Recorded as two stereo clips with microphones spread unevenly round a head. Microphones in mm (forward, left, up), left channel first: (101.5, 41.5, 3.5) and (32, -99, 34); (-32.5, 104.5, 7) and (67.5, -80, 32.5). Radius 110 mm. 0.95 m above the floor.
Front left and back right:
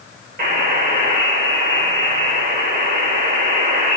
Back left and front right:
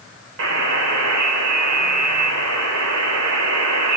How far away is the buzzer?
About 3.5 m.